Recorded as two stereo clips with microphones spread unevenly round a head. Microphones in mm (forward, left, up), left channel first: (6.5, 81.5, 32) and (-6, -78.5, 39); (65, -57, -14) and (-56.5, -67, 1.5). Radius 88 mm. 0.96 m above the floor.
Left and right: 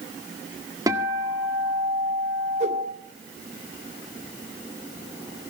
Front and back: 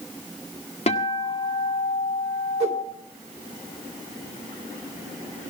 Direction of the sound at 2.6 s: 145° right.